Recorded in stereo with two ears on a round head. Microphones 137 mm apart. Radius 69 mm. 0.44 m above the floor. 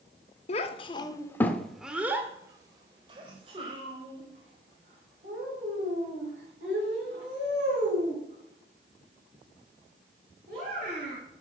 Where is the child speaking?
45° left (ahead or behind), 0.7 m; by 11.2 s 50° right (ahead or behind), 5 m.